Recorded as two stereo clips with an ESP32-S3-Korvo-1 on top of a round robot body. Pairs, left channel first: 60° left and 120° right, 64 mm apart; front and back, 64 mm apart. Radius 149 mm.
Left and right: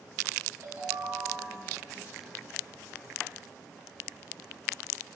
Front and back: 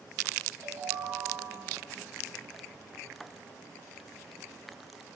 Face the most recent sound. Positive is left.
turn(degrees=-145)